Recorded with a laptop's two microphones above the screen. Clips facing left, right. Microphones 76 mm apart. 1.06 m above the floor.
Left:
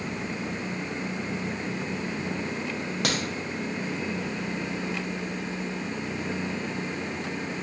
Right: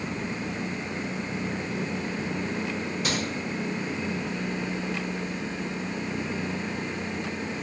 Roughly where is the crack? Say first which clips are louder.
Left 2 dB; left.